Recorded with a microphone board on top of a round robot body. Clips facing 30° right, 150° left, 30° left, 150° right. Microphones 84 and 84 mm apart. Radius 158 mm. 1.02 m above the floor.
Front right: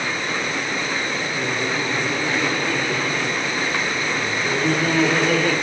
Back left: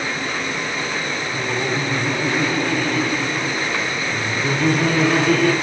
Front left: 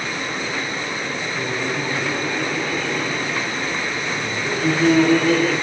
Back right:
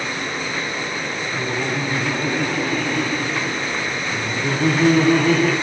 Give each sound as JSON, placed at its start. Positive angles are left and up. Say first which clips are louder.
{"t": 1.3, "sound": "laughter", "louder": "back left 3 dB, back right 2 dB", "azimuth_deg": -170, "distance_m": 8.5}